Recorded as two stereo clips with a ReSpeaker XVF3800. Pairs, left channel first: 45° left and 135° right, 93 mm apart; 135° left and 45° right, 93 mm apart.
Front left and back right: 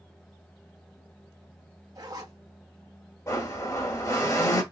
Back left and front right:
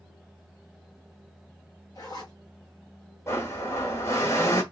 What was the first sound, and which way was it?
A zipper, straight behind.